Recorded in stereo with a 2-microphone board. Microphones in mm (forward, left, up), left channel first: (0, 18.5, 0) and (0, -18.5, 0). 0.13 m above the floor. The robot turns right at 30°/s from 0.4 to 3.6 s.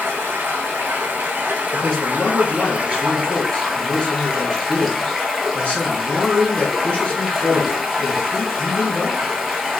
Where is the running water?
105° right, 0.8 m; by 9.8 s 5° right, 0.8 m.